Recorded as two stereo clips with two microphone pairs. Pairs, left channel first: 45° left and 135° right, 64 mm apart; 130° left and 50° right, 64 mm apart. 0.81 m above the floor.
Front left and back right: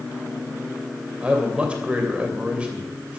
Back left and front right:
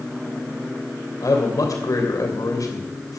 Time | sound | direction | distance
1.2 | a man speaking | 150° left | 2.5 m